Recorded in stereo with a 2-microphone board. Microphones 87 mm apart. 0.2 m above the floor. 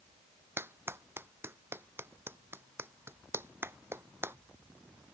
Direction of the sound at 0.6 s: 25° right (ahead or behind).